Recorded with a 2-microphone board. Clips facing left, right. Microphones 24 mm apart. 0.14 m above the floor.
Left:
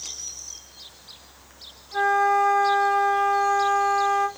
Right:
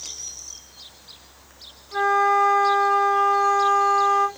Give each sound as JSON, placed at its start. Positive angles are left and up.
{"t": 1.9, "sound": "a flute", "side_deg": -15, "distance_m": 1.0}